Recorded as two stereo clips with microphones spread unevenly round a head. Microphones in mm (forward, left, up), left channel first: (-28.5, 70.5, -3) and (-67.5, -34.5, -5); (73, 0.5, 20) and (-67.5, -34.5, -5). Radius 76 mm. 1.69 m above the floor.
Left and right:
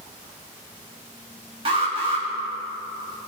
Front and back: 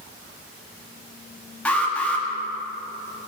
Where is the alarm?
60° right, 1.7 m.